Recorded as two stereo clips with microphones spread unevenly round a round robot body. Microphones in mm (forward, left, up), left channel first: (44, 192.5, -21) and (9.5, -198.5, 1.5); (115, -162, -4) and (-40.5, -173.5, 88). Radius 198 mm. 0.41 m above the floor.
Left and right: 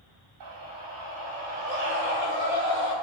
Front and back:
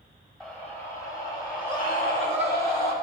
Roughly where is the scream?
Ahead right.